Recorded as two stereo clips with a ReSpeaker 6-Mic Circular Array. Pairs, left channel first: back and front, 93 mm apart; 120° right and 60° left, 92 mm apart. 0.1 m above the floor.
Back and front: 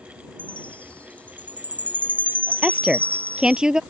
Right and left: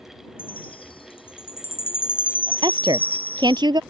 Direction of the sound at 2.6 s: 80° left.